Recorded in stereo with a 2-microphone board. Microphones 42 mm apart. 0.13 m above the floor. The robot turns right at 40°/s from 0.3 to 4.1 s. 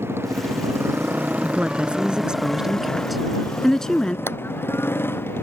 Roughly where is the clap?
Left.